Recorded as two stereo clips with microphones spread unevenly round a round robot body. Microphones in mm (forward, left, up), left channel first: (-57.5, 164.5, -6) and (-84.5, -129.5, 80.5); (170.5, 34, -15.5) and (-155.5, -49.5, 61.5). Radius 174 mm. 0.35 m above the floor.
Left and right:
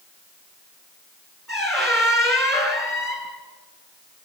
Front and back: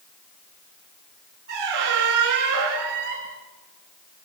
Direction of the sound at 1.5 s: 170° left.